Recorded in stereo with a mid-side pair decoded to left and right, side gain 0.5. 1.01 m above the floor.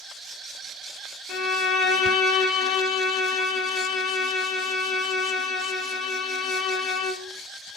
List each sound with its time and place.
1.3 s a violin: 65° left, 1.2 m